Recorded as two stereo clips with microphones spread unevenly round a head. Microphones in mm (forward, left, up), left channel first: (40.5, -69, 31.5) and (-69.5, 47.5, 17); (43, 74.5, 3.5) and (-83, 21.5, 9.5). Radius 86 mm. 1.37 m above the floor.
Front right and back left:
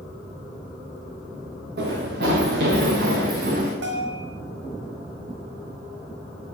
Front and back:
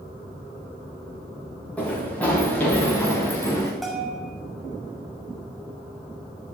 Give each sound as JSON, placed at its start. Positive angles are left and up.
{"t": 1.8, "sound": "running footsteps", "azimuth_deg": 105, "distance_m": 7.5}
{"t": 3.8, "sound": "a bell", "azimuth_deg": 110, "distance_m": 6.0}